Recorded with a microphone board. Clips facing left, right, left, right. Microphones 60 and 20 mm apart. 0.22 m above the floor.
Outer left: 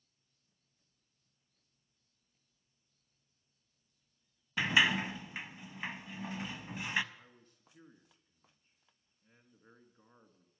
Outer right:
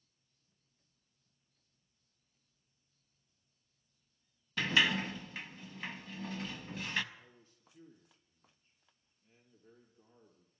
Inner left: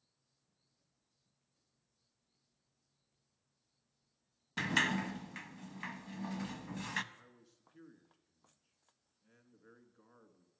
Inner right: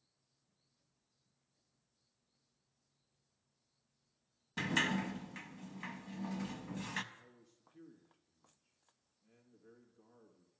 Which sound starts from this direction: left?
A man speaking, at 7.1 s.